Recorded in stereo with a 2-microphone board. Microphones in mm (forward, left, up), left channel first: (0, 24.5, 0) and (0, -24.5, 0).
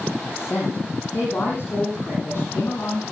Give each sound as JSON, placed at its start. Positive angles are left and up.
{"t": 0.2, "sound": "a woman speaking", "side_deg": 50, "distance_m": 7.0}